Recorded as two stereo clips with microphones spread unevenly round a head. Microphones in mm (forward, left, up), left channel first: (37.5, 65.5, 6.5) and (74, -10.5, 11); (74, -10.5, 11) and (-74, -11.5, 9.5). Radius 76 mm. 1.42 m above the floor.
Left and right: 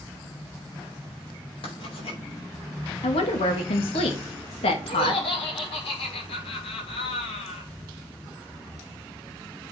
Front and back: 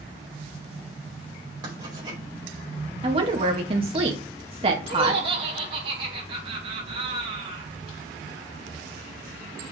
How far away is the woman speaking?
About 2.5 m.